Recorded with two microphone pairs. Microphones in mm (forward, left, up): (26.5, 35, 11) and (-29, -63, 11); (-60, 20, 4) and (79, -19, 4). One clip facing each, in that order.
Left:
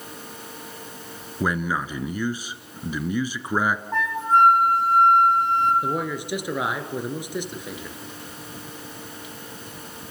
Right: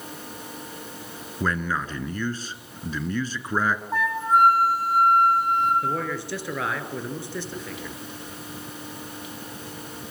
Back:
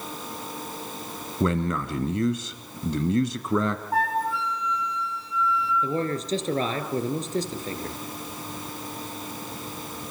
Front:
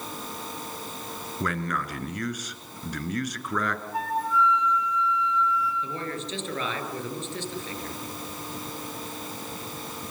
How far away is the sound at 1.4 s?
About 1.4 m.